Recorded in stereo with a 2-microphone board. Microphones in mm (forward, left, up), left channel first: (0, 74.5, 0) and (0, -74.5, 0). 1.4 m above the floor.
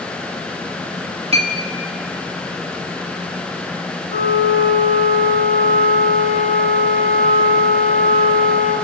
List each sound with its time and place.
1.3 s a clink: 40° right (ahead or behind), 1.6 m
4.1 s a flute: 50° left (ahead or behind), 3 m